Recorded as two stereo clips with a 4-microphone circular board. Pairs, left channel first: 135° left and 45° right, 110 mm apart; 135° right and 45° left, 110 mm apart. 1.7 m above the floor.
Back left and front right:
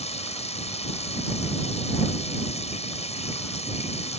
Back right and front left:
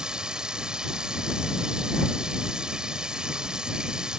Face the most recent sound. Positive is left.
turn(degrees=130)